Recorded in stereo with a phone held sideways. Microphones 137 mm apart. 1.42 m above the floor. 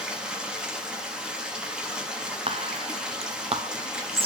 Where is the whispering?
40° right (ahead or behind), 0.7 m.